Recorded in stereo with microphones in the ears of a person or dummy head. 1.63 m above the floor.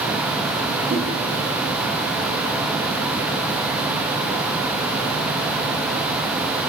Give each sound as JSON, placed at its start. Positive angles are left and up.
{"t": 0.9, "sound": "a whoosh", "side_deg": -45, "distance_m": 4.0}